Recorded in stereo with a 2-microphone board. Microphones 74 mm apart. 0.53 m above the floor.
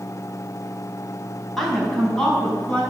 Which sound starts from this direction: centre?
A woman speaking, at 1.6 s.